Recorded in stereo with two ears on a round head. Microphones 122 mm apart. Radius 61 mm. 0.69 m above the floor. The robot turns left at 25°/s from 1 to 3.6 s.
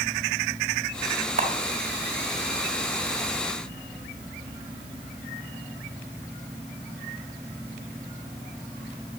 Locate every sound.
1.4 s a camera shutter: 55° right (ahead or behind), 1.5 m; by 1.5 s 60° right (ahead or behind), 1.5 m